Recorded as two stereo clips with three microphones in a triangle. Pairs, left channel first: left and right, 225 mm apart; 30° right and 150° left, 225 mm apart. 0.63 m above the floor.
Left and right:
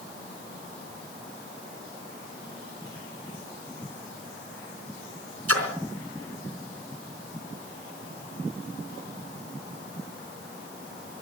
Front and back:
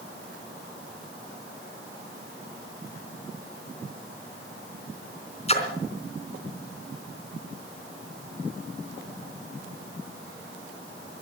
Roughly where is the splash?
Right.